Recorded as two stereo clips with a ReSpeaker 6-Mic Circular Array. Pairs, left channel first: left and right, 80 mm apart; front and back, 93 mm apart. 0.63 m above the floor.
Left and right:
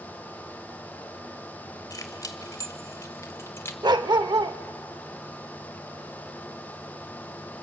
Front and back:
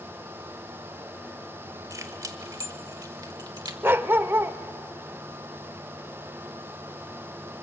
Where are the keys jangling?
130° left, 2 m; by 3.7 s 145° left, 1.3 m.